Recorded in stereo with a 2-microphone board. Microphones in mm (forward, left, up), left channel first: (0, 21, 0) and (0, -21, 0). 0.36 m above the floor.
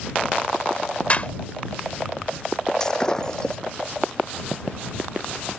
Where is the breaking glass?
20° left (ahead or behind).